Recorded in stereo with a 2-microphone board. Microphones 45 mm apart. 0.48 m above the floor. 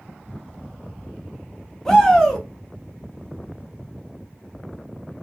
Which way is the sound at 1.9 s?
15° left (ahead or behind).